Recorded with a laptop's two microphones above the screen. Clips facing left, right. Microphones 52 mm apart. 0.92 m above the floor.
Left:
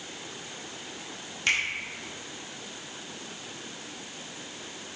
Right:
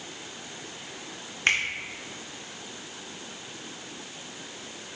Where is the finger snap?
40° right (ahead or behind), 1.0 m.